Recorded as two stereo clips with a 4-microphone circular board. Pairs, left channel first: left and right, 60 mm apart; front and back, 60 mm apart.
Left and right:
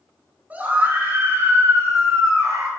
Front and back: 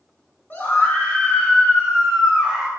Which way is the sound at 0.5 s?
40° right.